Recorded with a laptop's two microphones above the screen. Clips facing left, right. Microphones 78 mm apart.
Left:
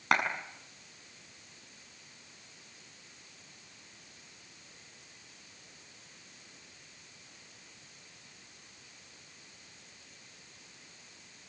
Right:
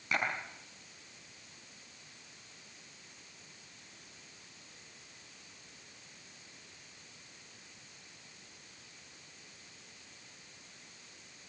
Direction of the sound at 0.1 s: 90° left.